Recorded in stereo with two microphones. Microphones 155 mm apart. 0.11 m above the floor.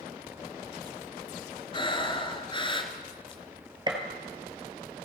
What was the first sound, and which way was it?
Breathing, 30° left (ahead or behind).